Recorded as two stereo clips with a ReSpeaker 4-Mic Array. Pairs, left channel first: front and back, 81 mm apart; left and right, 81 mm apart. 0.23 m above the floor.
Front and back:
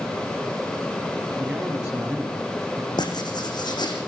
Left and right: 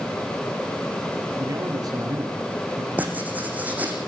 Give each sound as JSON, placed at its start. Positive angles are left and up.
{"t": 1.4, "sound": "a man speaking", "azimuth_deg": -105, "distance_m": 4.5}
{"t": 3.0, "sound": "writing", "azimuth_deg": -20, "distance_m": 4.0}